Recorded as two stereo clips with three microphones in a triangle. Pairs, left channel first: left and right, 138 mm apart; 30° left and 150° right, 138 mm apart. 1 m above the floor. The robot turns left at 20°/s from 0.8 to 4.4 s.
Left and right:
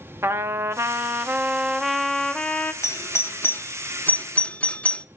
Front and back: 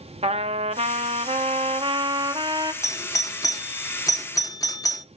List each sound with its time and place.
0.2 s a trumpet: 155° right, 0.8 m; by 2.7 s 165° left, 0.8 m
2.8 s a doorbell: 55° left, 0.7 m; by 5.0 s 25° left, 0.7 m